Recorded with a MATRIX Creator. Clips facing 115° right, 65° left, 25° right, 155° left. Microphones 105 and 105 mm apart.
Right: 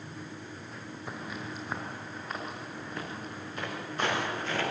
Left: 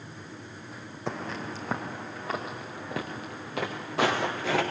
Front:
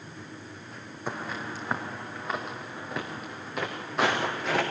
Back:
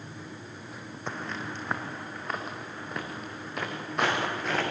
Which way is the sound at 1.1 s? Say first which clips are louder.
Left 6 dB, front 2 dB; 60° left.